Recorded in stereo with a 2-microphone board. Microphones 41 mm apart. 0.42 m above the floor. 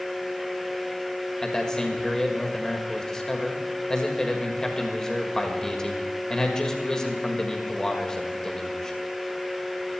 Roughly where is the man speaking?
Centre.